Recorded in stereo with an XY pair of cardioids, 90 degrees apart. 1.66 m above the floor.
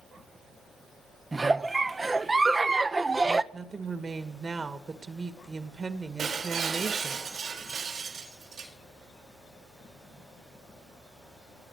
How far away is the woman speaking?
About 2 m.